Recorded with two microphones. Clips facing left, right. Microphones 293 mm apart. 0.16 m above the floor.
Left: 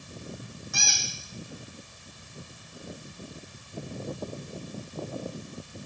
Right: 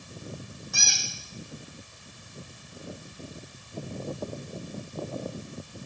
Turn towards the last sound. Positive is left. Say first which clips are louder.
# left 3 dB
turn(degrees=-50)  # may be behind; listen again after turning